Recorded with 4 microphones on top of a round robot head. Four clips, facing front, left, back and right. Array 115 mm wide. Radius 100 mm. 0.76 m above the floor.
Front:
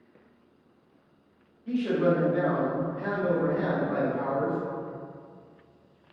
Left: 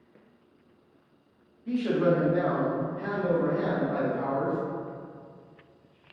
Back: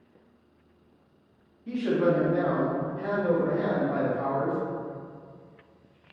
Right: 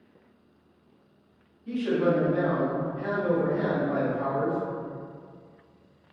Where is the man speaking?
155° left, 1.0 m; by 4.6 s 20° right, 1.3 m.